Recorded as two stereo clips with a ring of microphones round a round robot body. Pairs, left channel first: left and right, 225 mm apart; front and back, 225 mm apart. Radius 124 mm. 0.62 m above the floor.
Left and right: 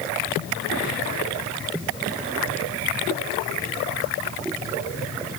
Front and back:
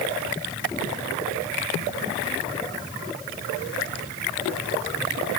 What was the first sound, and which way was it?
Only background noise.